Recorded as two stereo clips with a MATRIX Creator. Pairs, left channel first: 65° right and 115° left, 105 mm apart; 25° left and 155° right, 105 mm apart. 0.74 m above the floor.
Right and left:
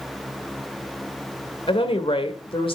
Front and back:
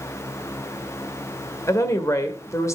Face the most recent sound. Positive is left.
turn(degrees=-40)